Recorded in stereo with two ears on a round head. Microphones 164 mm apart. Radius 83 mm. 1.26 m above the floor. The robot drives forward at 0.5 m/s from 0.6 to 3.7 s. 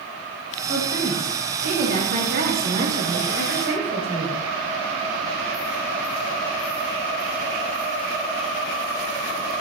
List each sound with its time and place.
0.7 s a woman speaking: 50° right (ahead or behind), 8.5 m; by 4.4 s 55° right (ahead or behind), 7.5 m